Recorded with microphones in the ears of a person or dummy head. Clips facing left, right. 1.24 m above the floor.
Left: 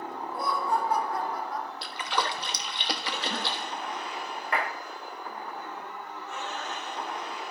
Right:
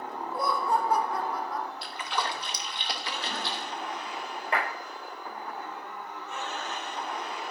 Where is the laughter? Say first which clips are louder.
Right 1 dB; 75° right (ahead or behind), 2 m; by 1.7 s 65° right (ahead or behind), 0.7 m.